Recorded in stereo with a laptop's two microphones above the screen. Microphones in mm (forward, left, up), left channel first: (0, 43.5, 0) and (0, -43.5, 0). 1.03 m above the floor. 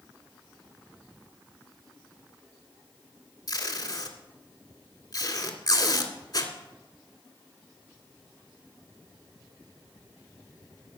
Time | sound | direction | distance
3.5 | tape being pulled | 55° left (ahead or behind) | 1.9 m